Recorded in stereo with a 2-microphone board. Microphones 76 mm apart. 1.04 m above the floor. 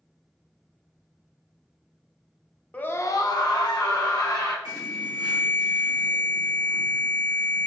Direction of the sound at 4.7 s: 55° right (ahead or behind).